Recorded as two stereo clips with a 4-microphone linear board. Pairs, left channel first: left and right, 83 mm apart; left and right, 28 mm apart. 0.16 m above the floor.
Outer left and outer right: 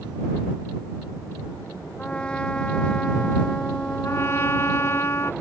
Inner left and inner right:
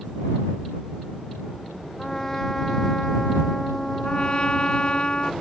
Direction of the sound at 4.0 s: 35° left (ahead or behind).